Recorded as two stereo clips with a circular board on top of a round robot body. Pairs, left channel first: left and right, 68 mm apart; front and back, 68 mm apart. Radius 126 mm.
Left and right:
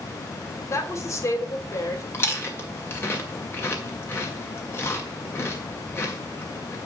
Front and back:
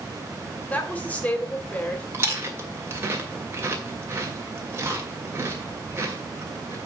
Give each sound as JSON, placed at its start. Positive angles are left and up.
{"t": 0.7, "sound": "a woman speaking", "azimuth_deg": 60, "distance_m": 2.0}
{"t": 2.1, "sound": "chewing", "azimuth_deg": 135, "distance_m": 2.5}